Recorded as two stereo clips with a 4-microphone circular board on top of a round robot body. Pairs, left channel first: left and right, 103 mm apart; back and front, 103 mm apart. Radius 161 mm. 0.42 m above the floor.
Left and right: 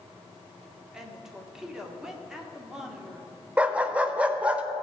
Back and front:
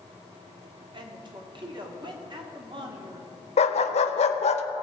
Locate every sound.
0.9 s a woman speaking: 5° right, 1.9 m
3.6 s a dog barking: 170° right, 0.6 m